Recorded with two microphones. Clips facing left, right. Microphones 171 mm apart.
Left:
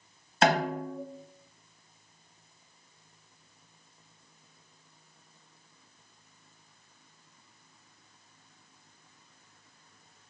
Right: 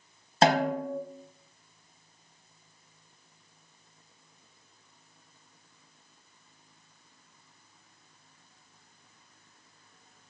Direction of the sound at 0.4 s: 30° right (ahead or behind).